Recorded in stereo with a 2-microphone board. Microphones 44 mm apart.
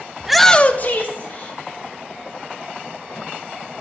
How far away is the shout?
About 0.7 m.